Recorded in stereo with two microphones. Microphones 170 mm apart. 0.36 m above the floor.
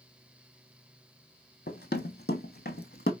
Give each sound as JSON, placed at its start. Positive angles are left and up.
{"t": 1.7, "sound": "running footsteps", "side_deg": 70, "distance_m": 0.9}